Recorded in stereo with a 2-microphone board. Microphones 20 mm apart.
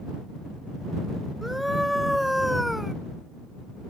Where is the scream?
5° right (ahead or behind).